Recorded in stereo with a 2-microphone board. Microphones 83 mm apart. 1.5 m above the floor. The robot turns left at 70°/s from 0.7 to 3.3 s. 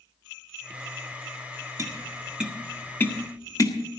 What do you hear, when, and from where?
1.8 s tapping: 45° right (ahead or behind), 1.6 m; by 3.8 s 45° left (ahead or behind), 1.6 m